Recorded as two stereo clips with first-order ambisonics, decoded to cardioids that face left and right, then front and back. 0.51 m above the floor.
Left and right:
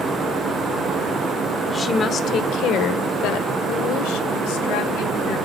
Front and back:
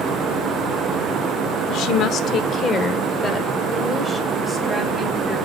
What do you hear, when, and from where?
1.7 s a woman speaking: 15° left, 1.2 m; by 5.4 s 90° left, 3.5 m